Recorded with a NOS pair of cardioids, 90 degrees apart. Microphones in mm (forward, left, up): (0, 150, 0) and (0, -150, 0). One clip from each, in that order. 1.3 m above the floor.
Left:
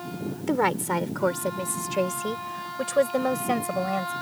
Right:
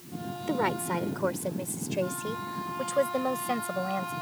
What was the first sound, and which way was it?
A woman speaking, 30° left.